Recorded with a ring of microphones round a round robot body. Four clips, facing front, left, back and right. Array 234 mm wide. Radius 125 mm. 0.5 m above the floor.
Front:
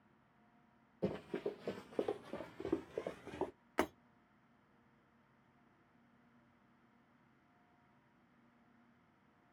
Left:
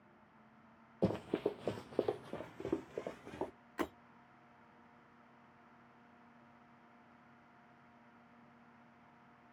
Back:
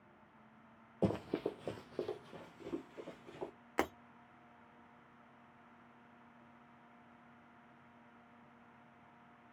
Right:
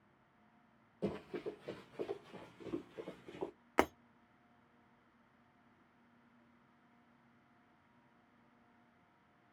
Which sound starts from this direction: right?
Breaking glass, at 3.8 s.